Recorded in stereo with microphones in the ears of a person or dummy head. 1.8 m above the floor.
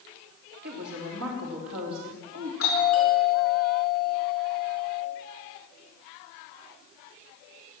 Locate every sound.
0.6 s a woman speaking: 75° right (ahead or behind), 4 m
2.6 s a doorbell: 60° left (ahead or behind), 7 m